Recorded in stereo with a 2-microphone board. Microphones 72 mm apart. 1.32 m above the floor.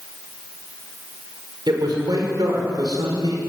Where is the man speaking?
70° right (ahead or behind), 5.5 m.